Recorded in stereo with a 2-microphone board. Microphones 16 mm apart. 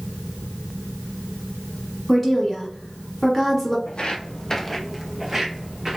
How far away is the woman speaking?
About 1.2 m.